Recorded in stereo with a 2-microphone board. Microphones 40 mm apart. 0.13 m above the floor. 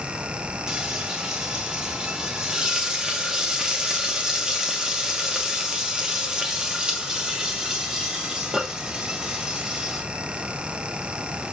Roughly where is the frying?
Centre.